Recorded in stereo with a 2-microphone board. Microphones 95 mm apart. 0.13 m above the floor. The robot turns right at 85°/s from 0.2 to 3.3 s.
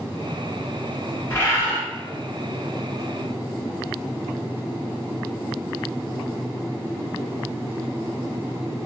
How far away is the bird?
About 1.4 m.